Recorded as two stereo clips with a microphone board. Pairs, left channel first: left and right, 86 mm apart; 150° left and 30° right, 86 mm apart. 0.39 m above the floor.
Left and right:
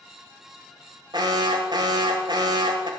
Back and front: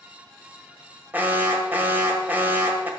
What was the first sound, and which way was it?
An alarm, 95° right.